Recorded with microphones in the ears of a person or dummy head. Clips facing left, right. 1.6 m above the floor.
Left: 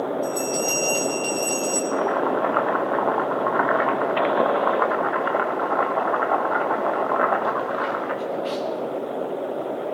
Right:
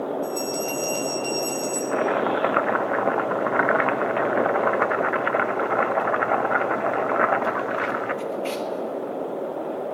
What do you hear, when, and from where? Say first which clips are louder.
0.2 s a bell: left 2 dB; 5° left (ahead or behind), 1.7 m
1.9 s chopping: right 1 dB; 35° right (ahead or behind), 0.7 m